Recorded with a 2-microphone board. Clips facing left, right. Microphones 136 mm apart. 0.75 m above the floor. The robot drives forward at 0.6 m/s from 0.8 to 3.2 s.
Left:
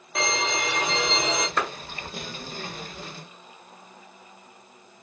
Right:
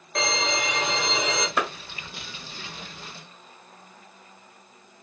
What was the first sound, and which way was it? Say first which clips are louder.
A violin: even; 5° left (ahead or behind).